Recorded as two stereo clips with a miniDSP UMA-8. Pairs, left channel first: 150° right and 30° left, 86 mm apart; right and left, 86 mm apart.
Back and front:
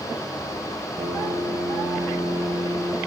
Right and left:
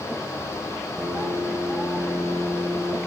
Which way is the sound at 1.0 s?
25° left.